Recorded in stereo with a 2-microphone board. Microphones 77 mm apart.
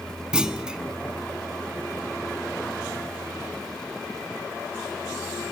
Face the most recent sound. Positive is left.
turn(degrees=-10)  # may be behind; listen again after turning